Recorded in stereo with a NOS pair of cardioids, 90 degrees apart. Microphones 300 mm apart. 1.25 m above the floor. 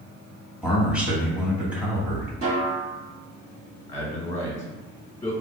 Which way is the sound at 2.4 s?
50° right.